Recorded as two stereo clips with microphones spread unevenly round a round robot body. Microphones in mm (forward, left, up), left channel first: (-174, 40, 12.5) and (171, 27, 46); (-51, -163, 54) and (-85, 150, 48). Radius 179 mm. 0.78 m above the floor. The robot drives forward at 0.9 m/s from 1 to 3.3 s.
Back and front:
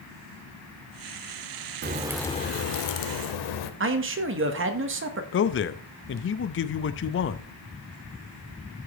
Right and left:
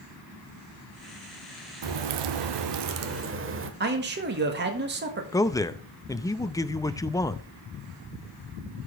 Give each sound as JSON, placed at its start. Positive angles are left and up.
{"t": 1.8, "sound": "a crack", "azimuth_deg": 55, "distance_m": 0.7}
{"t": 3.8, "sound": "a man speaking", "azimuth_deg": 50, "distance_m": 1.4}
{"t": 5.3, "sound": "a man speaking", "azimuth_deg": -160, "distance_m": 0.6}